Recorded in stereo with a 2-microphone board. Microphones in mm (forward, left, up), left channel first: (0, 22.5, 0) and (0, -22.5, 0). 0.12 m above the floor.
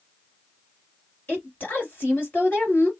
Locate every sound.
1.3 s a woman speaking: 40° left (ahead or behind), 2 m